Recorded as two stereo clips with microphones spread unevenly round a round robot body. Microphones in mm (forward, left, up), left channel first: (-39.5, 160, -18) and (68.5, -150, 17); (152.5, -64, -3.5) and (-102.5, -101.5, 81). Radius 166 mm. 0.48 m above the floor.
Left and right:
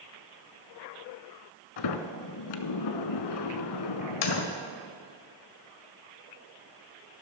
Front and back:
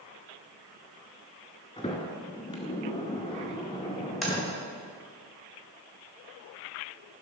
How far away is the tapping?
About 1.8 m.